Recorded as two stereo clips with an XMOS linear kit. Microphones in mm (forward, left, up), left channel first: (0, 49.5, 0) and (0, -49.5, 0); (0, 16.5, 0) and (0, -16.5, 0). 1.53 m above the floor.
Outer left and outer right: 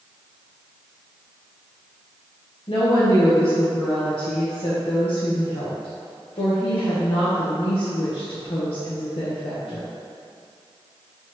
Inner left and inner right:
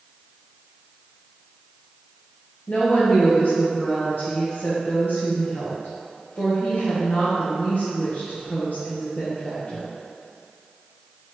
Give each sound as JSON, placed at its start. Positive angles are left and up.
{"t": 2.7, "sound": "a woman speaking", "side_deg": 70, "distance_m": 0.9}